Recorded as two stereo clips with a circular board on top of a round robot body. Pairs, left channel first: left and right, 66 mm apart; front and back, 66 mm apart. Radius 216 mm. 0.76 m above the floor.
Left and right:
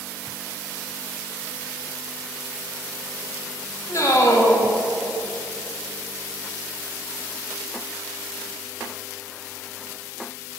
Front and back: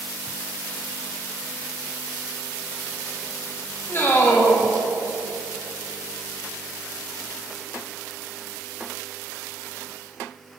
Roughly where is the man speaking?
Ahead left.